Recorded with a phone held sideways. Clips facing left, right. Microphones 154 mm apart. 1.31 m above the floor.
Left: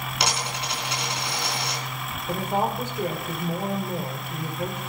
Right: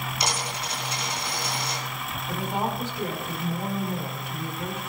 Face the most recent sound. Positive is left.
turn(degrees=50)  # may be behind; listen again after turning